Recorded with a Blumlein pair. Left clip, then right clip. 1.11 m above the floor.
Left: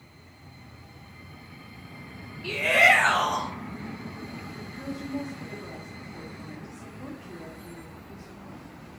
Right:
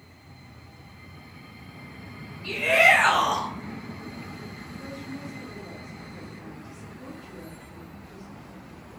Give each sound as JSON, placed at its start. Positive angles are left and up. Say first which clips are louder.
{"t": 2.4, "sound": "a shout", "louder": "right 1 dB", "azimuth_deg": 25, "distance_m": 0.6}
{"t": 4.8, "sound": "a woman speaking", "louder": "left 5 dB", "azimuth_deg": 25, "distance_m": 1.0}